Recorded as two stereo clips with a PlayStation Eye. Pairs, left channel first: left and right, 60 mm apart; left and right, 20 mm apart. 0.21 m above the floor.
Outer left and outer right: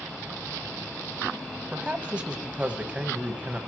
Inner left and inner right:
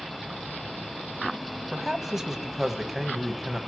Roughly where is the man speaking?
Centre.